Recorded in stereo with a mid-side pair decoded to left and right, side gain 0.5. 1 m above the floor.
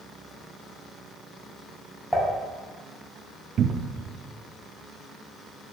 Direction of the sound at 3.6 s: 50° right.